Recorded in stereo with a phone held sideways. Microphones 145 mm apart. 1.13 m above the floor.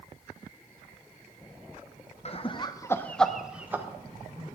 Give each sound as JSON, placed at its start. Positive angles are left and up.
{"t": 2.2, "sound": "laughter", "side_deg": 45, "distance_m": 0.8}